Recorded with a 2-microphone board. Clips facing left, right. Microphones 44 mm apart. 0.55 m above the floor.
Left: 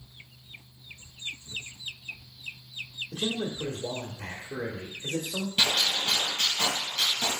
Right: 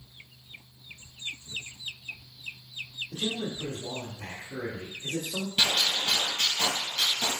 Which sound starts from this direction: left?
A man speaking, at 3.1 s.